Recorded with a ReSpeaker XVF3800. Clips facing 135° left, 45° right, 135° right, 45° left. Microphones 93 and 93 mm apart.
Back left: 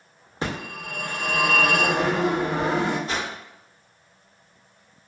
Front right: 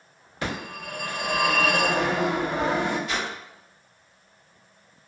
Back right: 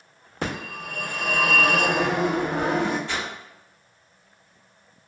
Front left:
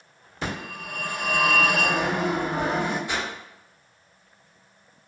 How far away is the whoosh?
About 0.8 m.